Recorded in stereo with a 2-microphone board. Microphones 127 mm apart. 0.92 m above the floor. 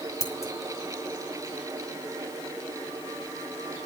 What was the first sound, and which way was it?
Scissors, 25° left (ahead or behind).